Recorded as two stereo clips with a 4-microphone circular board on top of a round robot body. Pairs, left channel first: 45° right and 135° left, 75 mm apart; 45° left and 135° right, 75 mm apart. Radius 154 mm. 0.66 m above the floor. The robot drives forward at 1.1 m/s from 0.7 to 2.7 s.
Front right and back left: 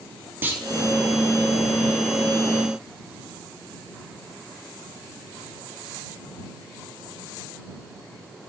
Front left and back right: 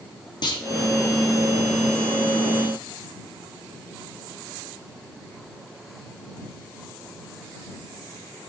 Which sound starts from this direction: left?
A clunk, at 0.4 s.